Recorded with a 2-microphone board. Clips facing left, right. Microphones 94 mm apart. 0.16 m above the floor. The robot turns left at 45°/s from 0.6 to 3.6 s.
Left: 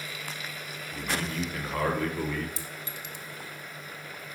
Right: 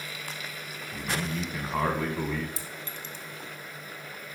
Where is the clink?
Centre (ahead or behind), 0.7 m; by 3.2 s 15° left (ahead or behind), 0.7 m.